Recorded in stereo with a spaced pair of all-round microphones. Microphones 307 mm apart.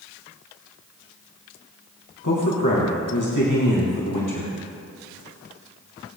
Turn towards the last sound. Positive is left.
turn(degrees=75)  # may be behind; listen again after turning